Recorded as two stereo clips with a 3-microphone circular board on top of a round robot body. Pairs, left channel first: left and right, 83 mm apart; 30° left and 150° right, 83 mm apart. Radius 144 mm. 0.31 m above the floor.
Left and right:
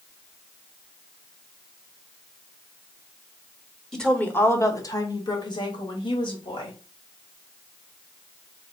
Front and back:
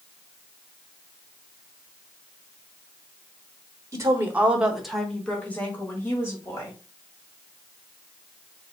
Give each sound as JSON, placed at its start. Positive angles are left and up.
{"t": 3.9, "sound": "a woman speaking", "azimuth_deg": 170, "distance_m": 1.2}